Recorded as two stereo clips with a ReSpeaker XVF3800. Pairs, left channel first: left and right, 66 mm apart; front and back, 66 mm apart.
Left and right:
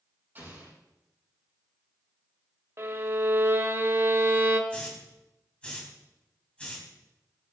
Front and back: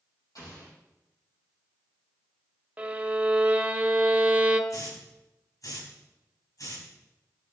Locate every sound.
0.3 s an explosion: 30° right, 6.5 m
2.8 s a violin: 120° right, 1.0 m
4.7 s a hiss: 15° left, 3.5 m